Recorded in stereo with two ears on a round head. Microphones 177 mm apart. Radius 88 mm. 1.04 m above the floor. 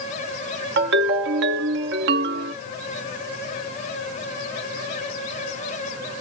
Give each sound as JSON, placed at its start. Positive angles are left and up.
{"t": 0.8, "sound": "a ringtone", "side_deg": -60, "distance_m": 0.7}